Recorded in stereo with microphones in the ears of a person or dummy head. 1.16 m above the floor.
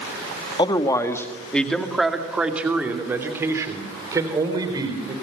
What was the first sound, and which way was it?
A man speaking, 25° left (ahead or behind).